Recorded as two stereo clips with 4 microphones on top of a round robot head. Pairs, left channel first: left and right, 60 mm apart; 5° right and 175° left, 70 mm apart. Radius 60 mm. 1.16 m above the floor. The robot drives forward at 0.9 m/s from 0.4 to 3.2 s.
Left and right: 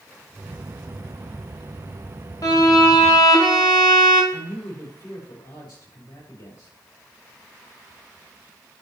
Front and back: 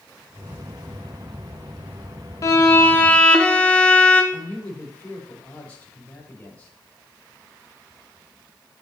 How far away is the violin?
About 1.4 m.